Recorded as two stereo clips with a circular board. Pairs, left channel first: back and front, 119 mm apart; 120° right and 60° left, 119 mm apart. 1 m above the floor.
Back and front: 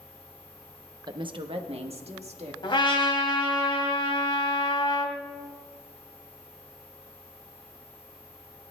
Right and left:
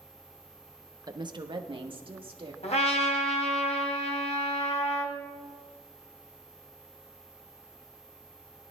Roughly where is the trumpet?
Behind right.